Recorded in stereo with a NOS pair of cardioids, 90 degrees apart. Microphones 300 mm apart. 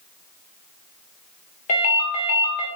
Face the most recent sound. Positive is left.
turn(degrees=65)